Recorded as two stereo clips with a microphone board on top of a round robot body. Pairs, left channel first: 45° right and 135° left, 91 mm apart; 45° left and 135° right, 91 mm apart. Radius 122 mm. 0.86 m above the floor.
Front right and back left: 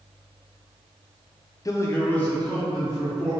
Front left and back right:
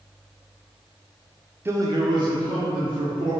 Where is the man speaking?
80° right, 0.6 m; by 3.3 s 135° right, 1.6 m.